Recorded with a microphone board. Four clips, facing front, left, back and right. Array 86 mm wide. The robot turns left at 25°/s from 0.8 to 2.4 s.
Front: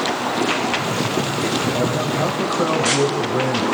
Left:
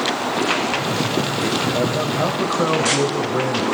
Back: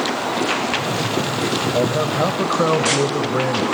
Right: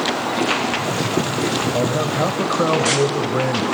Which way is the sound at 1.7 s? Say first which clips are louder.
Right 1 dB, back 2 dB; 145° right.